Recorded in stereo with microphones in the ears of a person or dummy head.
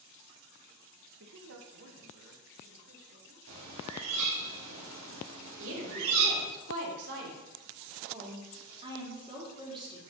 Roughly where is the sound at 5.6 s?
Right.